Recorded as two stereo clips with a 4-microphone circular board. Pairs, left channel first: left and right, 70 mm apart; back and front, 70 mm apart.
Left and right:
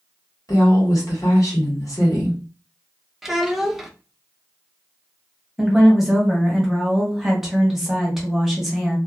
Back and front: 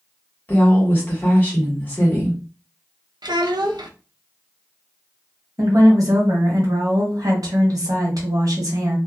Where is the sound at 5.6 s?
5° right, 1.1 m.